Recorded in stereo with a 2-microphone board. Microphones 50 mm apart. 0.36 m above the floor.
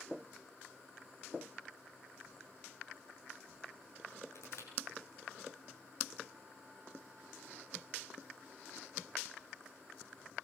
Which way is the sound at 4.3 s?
65° left (ahead or behind).